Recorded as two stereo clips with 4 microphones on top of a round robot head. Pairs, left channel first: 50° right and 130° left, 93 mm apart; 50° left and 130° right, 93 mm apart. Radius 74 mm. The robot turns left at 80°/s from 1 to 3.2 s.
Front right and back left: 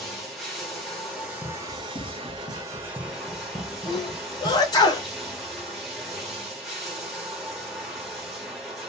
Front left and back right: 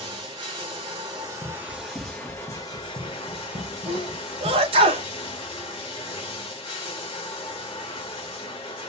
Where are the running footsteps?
20° left, 2.5 m; by 4.9 s 175° right, 1.2 m.